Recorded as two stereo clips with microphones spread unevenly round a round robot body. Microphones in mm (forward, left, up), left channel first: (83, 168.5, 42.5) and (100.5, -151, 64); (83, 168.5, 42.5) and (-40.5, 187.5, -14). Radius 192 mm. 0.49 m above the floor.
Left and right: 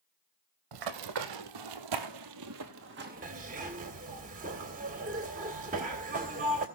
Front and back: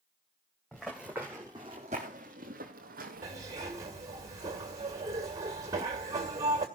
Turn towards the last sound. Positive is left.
turn(degrees=-150)